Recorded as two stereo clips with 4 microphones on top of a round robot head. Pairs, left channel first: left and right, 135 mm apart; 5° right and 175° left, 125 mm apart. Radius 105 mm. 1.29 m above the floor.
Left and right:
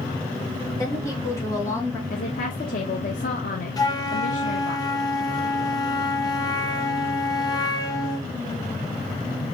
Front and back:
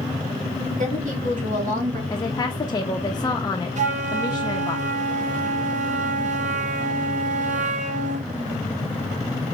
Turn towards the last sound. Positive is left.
turn(degrees=155)